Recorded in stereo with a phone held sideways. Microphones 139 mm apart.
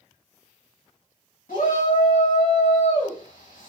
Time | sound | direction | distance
1.5 | a shout | 80° left | 1.4 m